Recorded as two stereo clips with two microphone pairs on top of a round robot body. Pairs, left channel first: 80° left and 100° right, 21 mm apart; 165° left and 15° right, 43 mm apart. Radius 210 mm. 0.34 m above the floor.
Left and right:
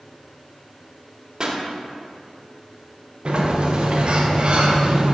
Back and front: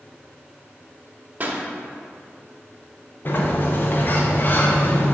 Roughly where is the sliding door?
Behind right.